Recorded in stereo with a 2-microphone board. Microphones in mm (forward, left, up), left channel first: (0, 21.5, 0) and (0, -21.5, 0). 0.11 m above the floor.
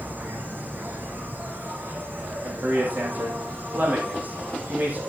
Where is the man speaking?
45° right (ahead or behind), 6 m.